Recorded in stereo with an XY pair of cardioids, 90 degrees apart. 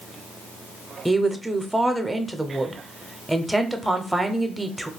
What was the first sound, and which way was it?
A woman speaking, 10° right.